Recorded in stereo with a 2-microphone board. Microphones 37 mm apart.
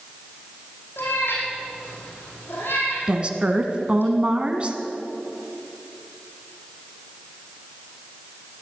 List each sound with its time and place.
1.0 s a cat meowing: 80° left, 5.5 m
3.1 s a woman speaking: 30° right (ahead or behind), 1.5 m